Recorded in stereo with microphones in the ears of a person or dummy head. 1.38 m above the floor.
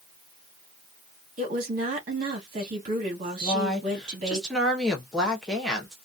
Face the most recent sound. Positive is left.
turn(degrees=0)  # may be behind; listen again after turning